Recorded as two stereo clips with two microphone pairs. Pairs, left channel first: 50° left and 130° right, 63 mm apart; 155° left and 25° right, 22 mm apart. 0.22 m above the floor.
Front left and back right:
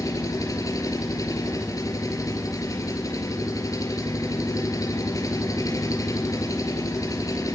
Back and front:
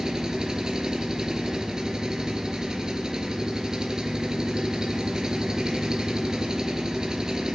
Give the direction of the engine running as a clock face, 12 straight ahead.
11 o'clock.